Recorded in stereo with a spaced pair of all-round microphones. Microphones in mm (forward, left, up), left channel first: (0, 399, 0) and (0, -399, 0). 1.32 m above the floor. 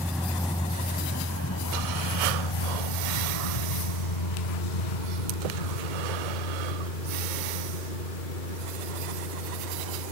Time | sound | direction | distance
0.0 | a vehicle | centre (ahead or behind) | ?